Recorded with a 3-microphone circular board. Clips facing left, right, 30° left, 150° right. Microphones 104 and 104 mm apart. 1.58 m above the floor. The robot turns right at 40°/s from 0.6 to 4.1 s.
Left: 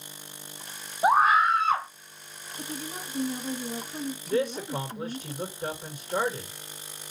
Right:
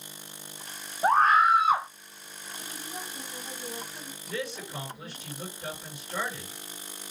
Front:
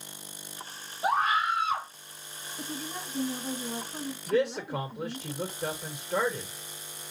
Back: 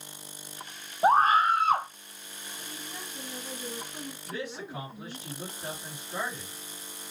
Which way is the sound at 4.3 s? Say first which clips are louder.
Left 8 dB, front 12 dB; 45° left.